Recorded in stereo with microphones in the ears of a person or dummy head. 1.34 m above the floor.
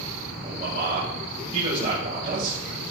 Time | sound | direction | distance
0.4 | a man speaking | 45° right (ahead or behind) | 7.5 m